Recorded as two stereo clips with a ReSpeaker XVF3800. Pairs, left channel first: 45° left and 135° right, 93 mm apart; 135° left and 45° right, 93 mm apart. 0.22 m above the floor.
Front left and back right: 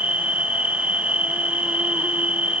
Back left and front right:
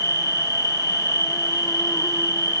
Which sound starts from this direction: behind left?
An insect, at 0.0 s.